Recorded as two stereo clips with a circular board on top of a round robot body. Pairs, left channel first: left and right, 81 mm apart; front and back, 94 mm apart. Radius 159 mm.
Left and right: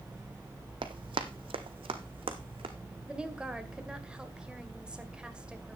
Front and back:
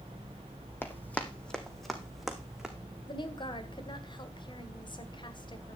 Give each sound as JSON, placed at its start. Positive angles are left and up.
{"t": 0.8, "sound": "running footsteps", "azimuth_deg": -65, "distance_m": 1.2}
{"t": 3.1, "sound": "a woman speaking", "azimuth_deg": -15, "distance_m": 2.0}